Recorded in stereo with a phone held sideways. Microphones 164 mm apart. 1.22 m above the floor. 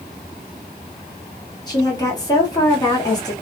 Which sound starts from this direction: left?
A woman speaking, at 1.7 s.